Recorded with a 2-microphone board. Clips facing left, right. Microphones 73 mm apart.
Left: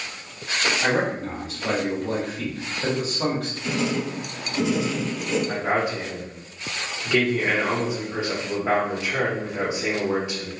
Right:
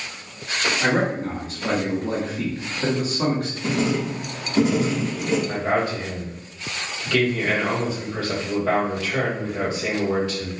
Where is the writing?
45° right (ahead or behind), 0.7 m.